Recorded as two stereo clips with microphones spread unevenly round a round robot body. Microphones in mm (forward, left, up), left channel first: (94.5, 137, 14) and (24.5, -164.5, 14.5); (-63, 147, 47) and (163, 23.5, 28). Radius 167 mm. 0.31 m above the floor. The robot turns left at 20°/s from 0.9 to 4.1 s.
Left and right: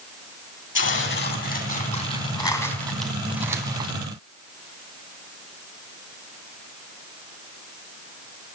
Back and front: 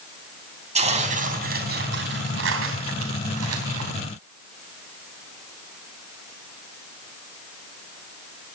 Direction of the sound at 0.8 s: 30° left.